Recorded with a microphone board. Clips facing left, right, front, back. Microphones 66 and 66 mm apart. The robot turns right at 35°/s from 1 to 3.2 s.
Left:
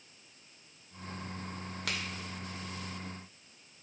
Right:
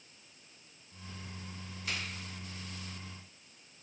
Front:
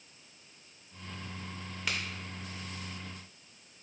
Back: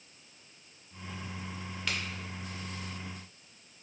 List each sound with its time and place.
1.9 s a crack: 85° left, 0.7 m; by 2.0 s 90° left, 0.7 m